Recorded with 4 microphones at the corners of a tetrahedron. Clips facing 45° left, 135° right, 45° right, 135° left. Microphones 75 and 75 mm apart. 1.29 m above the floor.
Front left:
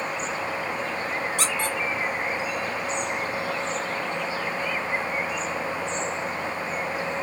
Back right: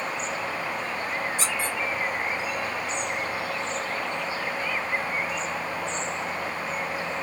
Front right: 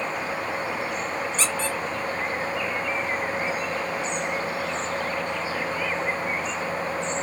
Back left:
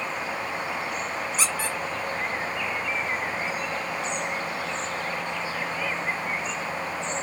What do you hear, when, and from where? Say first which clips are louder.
1.4 s a squeak: front left 2 dB, front right 1 dB; 50° left, 0.6 m